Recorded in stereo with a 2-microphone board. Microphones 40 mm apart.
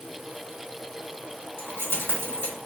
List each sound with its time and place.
1.6 s keys jangling: 65° left (ahead or behind), 1.9 m